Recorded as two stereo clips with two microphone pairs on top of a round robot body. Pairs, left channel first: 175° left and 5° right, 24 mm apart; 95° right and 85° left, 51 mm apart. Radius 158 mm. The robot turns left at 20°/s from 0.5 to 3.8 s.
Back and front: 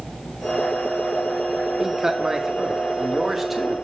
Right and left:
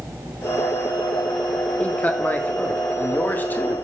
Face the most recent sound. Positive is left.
turn(degrees=-95)